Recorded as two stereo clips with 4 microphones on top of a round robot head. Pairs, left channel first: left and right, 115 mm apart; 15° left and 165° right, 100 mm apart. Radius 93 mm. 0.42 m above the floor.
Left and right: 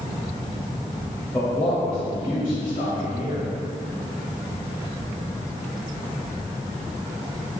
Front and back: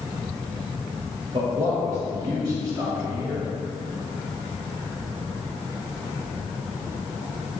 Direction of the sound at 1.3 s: 165° left.